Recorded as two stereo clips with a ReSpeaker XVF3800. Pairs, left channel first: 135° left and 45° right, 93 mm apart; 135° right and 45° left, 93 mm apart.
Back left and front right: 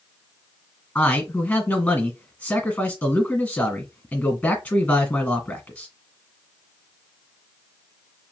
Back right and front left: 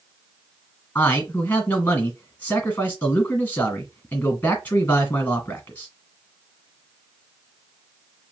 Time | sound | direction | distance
0.9 | a man speaking | 170° right | 1.5 m